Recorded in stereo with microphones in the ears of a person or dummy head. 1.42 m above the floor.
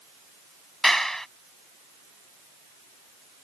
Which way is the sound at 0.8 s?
Centre (ahead or behind).